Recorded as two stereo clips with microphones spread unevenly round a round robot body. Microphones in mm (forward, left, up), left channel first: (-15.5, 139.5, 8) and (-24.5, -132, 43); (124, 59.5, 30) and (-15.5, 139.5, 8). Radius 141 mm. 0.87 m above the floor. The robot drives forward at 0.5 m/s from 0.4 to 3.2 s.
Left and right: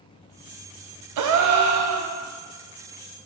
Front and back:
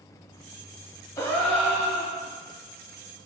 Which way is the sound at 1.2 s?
110° right.